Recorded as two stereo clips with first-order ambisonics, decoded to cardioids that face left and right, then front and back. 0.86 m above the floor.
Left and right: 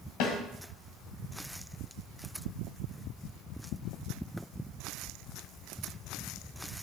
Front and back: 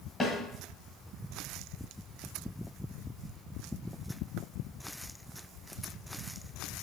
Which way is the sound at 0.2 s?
75° left.